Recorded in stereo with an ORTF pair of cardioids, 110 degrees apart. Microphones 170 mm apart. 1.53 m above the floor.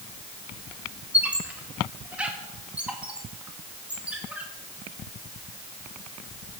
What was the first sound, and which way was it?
A squeak, 10° right.